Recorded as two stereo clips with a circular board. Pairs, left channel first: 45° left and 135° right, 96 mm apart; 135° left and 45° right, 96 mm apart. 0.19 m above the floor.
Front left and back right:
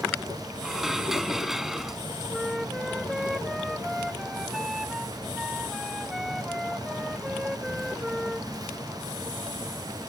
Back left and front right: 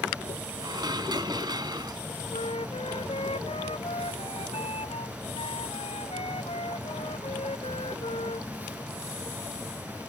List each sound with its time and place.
0.6 s dishes clattering: 50° right
2.3 s a flute: 135° left